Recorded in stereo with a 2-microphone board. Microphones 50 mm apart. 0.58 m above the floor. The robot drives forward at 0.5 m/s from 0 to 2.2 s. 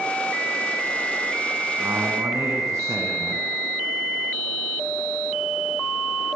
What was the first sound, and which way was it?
A man speaking, 80° right.